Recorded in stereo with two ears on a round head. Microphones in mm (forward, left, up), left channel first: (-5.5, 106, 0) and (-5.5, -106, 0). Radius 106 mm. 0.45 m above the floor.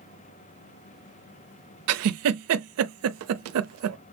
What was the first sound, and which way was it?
A giggle, 65° right (ahead or behind).